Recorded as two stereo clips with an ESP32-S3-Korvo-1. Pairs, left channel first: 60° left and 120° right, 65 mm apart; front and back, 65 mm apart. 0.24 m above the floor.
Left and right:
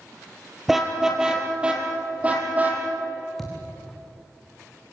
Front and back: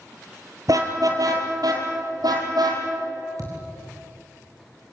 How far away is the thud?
About 4.5 m.